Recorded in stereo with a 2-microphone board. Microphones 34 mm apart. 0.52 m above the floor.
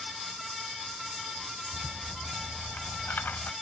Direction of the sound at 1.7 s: 65° left (ahead or behind).